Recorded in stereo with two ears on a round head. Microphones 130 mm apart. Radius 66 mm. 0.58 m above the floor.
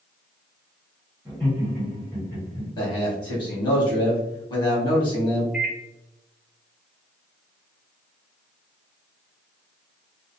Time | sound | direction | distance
1.2 | laughter | 5° right (ahead or behind) | 1.8 m
2.8 | a man speaking | 30° left (ahead or behind) | 1.4 m
5.5 | a microwave | 5° right (ahead or behind) | 0.8 m